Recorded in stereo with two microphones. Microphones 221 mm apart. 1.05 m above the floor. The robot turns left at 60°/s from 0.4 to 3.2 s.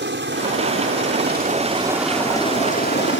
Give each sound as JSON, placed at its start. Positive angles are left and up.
{"t": 0.0, "sound": "a helicopter", "side_deg": -55}